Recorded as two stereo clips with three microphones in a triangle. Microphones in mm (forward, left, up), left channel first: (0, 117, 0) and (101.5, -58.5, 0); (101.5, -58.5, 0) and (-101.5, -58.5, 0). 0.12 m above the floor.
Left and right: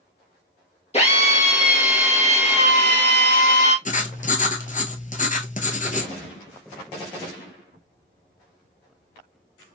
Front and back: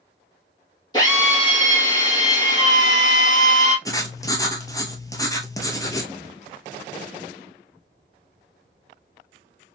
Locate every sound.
0.9 s a drill: 65° left, 2 m
3.9 s writing: 70° left, 0.7 m